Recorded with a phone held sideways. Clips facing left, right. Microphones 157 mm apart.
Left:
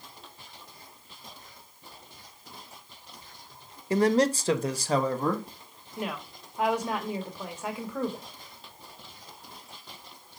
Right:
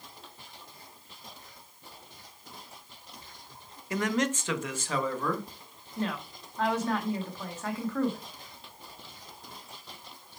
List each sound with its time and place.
3.9 s a man speaking: 30° left (ahead or behind), 0.6 m; by 5.5 s 35° left (ahead or behind), 1.4 m
6.0 s a woman speaking: 10° left (ahead or behind), 1.6 m